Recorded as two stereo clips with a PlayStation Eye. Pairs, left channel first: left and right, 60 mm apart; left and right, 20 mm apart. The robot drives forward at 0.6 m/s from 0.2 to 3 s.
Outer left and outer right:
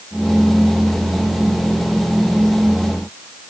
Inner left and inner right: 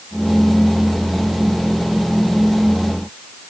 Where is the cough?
No cough in this recording.